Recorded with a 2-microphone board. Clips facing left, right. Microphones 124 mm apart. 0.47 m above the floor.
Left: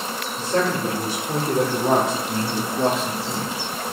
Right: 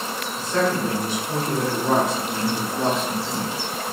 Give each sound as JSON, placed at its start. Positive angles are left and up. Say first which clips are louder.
{"t": 0.4, "sound": "a man speaking", "louder": "even", "side_deg": 35, "distance_m": 1.4}